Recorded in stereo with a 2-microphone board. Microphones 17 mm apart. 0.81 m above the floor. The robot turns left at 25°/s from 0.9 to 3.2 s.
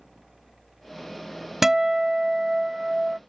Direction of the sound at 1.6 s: 25° right (ahead or behind).